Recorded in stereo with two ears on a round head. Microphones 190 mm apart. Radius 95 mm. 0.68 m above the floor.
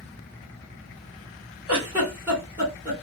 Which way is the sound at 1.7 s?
10° right (ahead or behind).